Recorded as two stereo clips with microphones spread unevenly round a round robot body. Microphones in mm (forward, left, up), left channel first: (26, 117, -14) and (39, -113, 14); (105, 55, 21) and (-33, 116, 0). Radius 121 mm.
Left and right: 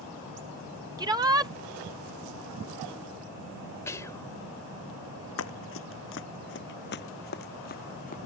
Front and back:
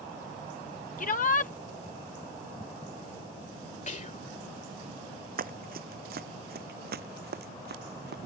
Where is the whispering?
15° left.